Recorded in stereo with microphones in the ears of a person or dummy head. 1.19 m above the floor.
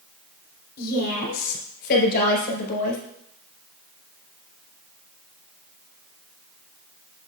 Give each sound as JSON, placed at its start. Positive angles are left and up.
{"t": 0.8, "sound": "a woman speaking", "side_deg": 55, "distance_m": 3.5}